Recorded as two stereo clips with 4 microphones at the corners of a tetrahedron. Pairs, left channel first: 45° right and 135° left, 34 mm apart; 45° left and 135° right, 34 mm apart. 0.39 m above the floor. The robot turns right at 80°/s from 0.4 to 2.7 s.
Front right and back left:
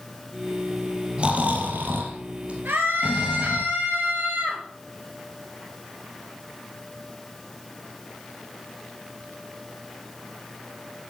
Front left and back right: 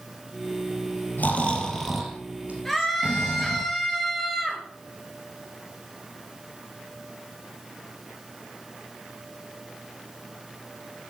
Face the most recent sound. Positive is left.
turn(degrees=130)